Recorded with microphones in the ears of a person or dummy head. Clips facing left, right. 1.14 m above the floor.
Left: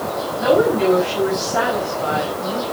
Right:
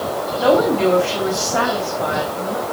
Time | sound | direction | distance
0.4 | a woman speaking | 45° right (ahead or behind) | 6.5 m